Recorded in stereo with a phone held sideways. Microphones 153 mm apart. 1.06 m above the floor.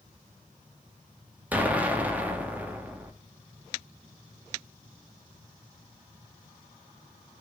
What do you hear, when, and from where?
1.5 s an explosion: 10° right (ahead or behind), 2 m